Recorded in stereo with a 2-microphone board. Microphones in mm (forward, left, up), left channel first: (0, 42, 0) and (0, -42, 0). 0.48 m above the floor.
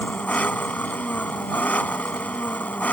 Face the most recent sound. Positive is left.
turn(degrees=15)  # may be behind; listen again after turning